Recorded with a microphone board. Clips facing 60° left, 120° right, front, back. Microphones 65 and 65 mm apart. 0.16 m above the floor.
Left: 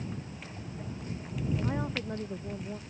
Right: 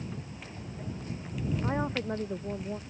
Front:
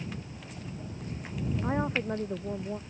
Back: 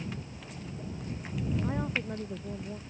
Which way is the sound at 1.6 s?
55° right.